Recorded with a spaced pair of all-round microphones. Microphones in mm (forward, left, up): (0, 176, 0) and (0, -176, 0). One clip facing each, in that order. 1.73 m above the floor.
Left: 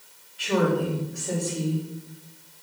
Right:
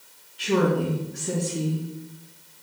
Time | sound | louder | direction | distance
0.4 | a woman speaking | right 1 dB | 45° right (ahead or behind) | 3.5 m